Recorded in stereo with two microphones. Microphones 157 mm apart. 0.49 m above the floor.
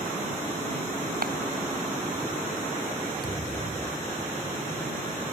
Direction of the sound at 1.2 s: 65° right (ahead or behind).